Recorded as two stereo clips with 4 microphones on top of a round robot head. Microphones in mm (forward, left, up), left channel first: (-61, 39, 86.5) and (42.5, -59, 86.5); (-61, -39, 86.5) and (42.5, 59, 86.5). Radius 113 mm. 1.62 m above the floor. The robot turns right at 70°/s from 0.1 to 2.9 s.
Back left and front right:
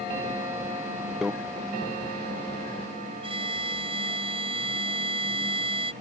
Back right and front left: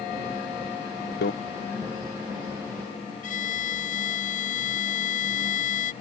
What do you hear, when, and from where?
1.2 s a microwave: 130° right; by 1.3 s 125° right
3.2 s a violin: 95° right